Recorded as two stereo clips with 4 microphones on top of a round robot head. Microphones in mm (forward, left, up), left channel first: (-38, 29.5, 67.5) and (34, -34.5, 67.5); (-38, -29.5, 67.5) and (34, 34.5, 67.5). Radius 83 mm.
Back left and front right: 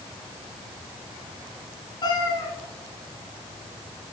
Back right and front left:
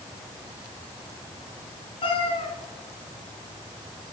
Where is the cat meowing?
170° right, 1.9 m.